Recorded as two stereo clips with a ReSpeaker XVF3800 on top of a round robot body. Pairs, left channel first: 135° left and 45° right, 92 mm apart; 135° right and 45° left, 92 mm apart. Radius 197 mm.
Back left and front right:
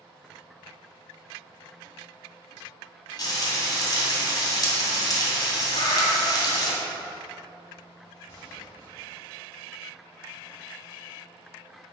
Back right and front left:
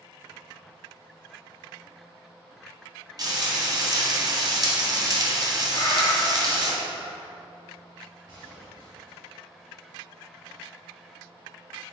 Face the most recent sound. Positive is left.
turn(degrees=85)